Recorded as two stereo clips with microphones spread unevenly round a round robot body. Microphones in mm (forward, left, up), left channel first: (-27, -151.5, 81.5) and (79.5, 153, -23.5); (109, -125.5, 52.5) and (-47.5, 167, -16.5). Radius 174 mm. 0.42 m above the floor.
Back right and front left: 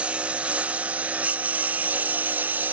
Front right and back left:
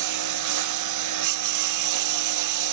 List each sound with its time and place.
0.0 s a lawn mower: 155° left